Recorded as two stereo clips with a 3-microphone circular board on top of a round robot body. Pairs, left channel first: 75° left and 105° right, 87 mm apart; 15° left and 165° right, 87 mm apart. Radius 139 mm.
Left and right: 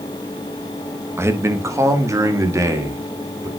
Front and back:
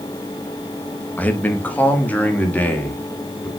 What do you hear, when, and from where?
1.2 s a man speaking: 55° right, 1.2 m